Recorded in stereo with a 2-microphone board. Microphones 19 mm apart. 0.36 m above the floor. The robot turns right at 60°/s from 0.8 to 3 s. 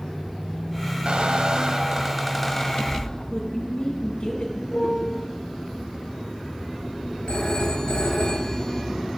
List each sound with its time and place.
1.1 s a squeak: 75° right, 0.7 m; by 3.3 s 40° left, 0.7 m
3.3 s a woman speaking: 55° left (ahead or behind), 3 m
4.7 s a piano: 80° left, 3.5 m
7.3 s a phone ringing: 65° left (ahead or behind), 3 m